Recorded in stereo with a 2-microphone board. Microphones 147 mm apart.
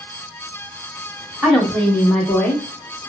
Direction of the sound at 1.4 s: 5° right (ahead or behind).